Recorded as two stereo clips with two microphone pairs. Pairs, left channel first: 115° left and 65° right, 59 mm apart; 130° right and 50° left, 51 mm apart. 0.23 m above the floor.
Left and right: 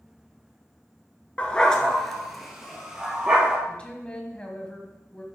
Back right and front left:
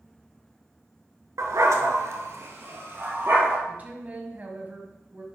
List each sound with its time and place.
1.4 s a dog barking: 50° left, 1.2 m; by 3.6 s 10° left, 2.5 m
3.7 s a woman speaking: 60° left, 1.7 m